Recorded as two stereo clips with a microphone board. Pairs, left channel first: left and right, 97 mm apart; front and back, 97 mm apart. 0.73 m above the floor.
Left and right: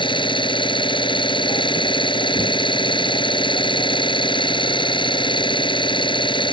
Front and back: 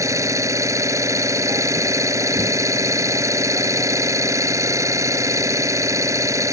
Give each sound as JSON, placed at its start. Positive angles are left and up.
{"t": 0.0, "sound": "an engine running", "azimuth_deg": 120}